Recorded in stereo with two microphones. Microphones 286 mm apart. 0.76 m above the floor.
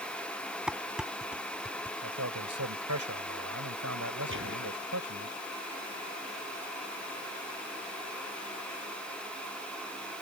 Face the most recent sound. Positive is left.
turn(degrees=-45)  # may be behind; listen again after turning